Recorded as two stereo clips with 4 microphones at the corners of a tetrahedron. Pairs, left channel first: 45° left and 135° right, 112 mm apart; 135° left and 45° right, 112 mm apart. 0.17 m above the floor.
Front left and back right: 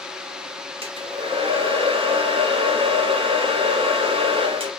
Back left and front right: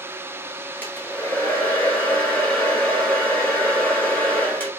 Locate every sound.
0.8 s a hair dryer: 150° right, 1.5 m